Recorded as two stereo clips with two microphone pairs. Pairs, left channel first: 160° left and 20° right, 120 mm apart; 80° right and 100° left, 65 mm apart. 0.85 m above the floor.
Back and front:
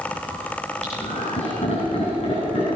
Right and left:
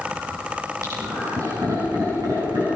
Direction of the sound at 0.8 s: 135° left.